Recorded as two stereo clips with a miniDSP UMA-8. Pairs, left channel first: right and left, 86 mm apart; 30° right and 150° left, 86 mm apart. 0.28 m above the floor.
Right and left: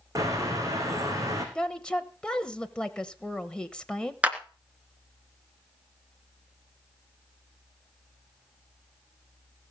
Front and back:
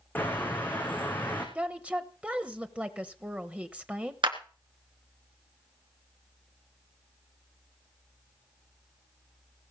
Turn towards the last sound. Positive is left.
turn(degrees=165)